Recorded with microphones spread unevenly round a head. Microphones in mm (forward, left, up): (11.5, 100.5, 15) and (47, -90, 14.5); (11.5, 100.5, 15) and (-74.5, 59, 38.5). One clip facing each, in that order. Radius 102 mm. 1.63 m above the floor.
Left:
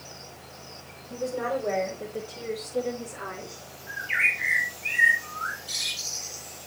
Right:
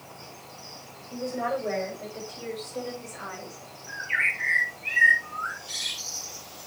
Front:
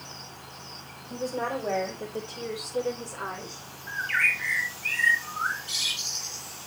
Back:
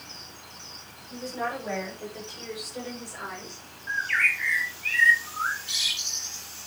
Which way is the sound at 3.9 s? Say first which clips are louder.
Left 1 dB, back 1 dB; 70° left.